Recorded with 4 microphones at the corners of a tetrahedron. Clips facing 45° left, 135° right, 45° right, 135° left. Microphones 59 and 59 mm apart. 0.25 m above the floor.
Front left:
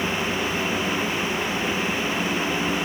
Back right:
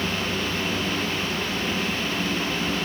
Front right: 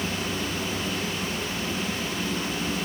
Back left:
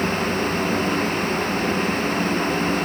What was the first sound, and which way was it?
Only background noise.